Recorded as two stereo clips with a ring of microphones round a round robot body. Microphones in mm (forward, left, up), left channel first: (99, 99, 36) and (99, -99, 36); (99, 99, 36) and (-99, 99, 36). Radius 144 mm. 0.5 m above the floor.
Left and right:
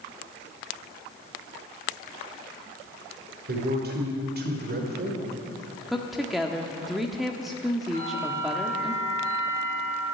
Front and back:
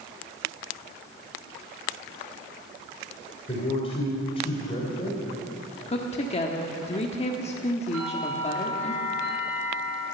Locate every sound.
3.5 s a man speaking: 65° right, 2.5 m
5.9 s a woman speaking: straight ahead, 1.2 m
7.9 s a bell: 155° right, 5.5 m